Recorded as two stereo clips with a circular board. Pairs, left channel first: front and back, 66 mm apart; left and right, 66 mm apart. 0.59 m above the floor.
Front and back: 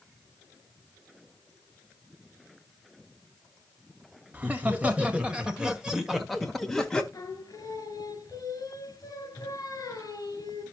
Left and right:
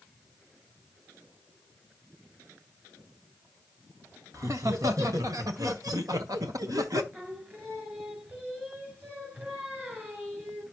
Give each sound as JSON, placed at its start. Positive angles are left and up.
{"t": 4.3, "sound": "laughter", "azimuth_deg": -120, "distance_m": 2.5}
{"t": 7.1, "sound": "singing", "azimuth_deg": -25, "distance_m": 3.5}